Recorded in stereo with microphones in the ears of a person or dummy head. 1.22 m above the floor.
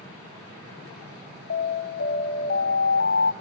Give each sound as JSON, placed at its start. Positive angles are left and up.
{"t": 1.5, "sound": "an alarm", "side_deg": 60, "distance_m": 1.0}